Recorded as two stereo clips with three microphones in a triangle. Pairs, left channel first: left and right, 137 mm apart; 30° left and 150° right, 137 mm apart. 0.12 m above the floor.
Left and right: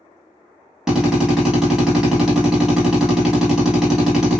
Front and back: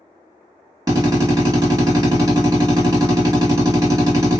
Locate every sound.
0.9 s a drill: 170° right, 1.9 m